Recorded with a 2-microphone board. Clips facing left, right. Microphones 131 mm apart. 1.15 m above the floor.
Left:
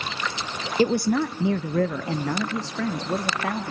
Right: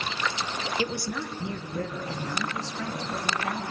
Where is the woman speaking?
40° left (ahead or behind), 0.5 m; by 3.7 s 70° left (ahead or behind), 2 m.